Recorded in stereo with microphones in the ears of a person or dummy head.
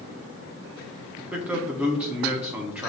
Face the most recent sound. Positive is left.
turn(degrees=-5)  # may be behind; listen again after turning